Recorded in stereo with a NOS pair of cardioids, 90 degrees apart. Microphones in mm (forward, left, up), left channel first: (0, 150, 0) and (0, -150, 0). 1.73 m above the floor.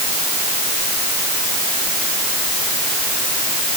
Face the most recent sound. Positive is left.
No sound to turn to.